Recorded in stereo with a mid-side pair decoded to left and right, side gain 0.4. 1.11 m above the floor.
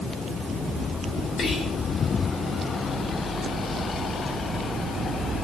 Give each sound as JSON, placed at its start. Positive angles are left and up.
{"t": 1.4, "sound": "whispering", "azimuth_deg": 55, "distance_m": 1.5}